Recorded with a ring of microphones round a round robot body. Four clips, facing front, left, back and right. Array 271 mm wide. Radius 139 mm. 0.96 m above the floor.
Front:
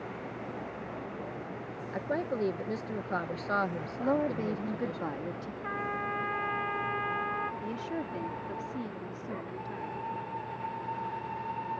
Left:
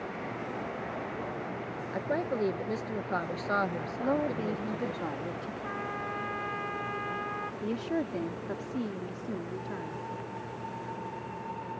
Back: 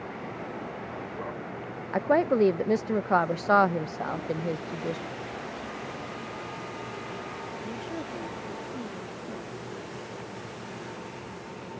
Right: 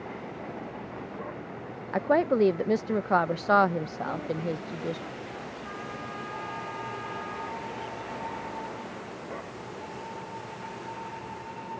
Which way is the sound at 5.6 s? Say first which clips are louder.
Left 2 dB, front 3 dB; 20° left.